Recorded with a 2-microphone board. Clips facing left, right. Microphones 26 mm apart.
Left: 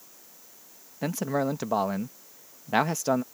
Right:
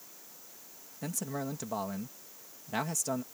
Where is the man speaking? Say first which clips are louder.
Left 10 dB; 35° left (ahead or behind).